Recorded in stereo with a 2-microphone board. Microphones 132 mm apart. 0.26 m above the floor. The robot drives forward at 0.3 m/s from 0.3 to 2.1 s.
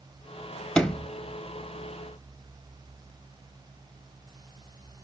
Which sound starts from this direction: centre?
A sliding door, at 0.8 s.